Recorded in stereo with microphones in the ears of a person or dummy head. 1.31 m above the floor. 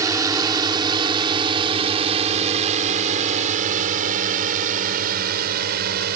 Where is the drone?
10° right (ahead or behind); by 6.2 s 45° right (ahead or behind).